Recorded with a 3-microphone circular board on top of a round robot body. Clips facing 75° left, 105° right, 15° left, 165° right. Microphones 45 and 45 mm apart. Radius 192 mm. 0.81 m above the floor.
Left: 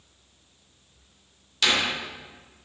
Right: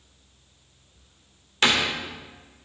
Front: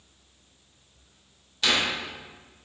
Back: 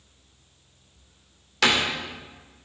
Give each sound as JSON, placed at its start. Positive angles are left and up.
{"t": 1.6, "sound": "a door slam", "azimuth_deg": -160, "distance_m": 2.5}